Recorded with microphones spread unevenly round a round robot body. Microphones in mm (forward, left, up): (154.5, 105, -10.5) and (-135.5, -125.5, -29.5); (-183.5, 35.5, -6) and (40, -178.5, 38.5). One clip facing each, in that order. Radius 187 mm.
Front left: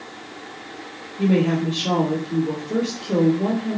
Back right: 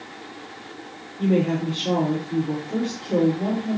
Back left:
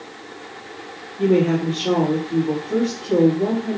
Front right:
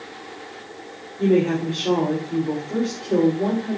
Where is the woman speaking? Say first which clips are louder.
Front left 2 dB, back left 1 dB; 55° left, 3.5 m.